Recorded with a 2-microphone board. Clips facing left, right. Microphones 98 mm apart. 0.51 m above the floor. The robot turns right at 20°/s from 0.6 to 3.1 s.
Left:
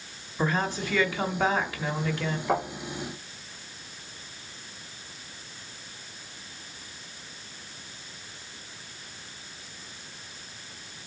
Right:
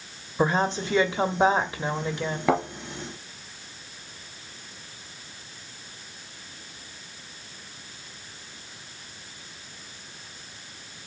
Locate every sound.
0.4 s a woman speaking: 25° right (ahead or behind), 0.9 m; by 2.4 s 20° right (ahead or behind), 0.9 m
2.5 s a thud: 85° right, 2.0 m